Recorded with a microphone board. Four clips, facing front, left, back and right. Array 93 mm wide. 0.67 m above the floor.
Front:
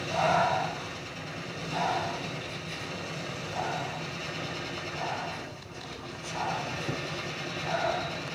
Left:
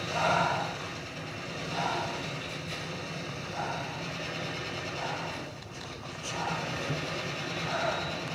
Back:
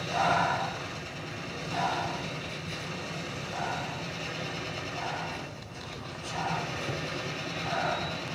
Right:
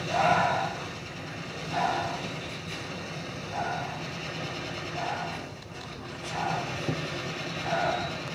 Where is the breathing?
85° right, 6 m.